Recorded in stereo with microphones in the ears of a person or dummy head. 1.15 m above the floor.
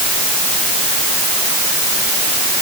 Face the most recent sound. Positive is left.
No sound to turn to.